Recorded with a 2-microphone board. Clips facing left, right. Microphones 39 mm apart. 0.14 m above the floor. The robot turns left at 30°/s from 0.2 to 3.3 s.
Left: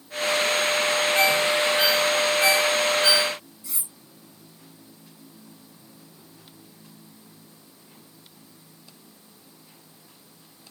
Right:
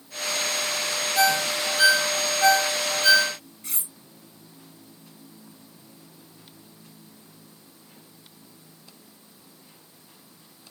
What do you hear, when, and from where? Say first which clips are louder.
1.1 s a ringtone: right 1 dB; 45° left (ahead or behind), 2.0 m; by 3.3 s 55° left (ahead or behind), 2.0 m
3.6 s cutlery clinking: right 1 dB; 55° right (ahead or behind), 1.5 m